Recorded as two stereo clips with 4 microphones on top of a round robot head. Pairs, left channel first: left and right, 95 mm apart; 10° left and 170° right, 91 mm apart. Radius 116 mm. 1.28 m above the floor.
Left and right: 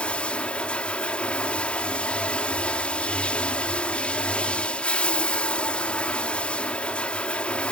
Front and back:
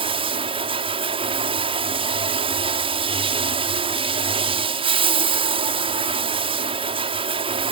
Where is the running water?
170° left.